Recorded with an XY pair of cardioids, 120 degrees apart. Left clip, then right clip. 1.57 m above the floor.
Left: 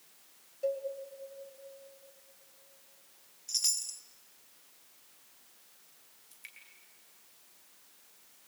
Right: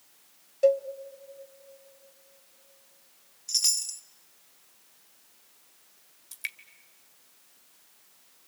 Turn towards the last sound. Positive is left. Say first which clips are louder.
# right 16 dB
turn(degrees=-65)